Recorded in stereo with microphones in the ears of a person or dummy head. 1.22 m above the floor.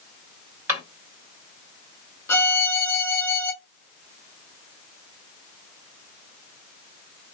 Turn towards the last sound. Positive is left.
turn(degrees=10)  # may be behind; listen again after turning